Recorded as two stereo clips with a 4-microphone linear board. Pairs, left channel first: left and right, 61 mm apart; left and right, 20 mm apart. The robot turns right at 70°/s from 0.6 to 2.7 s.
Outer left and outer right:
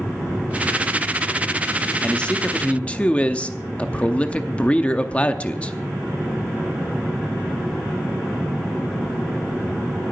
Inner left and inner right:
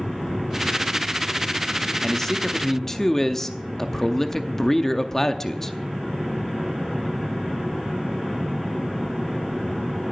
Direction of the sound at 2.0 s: 15° left (ahead or behind).